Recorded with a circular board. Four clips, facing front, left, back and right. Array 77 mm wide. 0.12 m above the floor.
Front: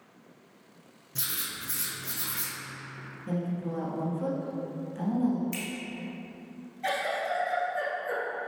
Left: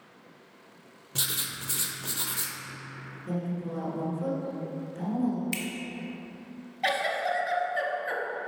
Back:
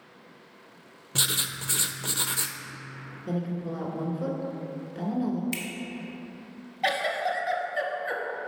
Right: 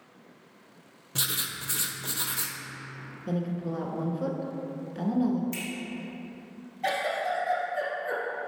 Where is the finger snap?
125° left, 1.5 m.